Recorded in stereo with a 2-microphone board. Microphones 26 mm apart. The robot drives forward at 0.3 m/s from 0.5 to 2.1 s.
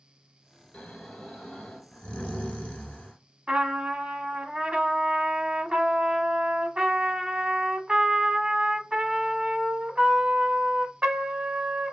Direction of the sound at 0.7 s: 50° left (ahead or behind).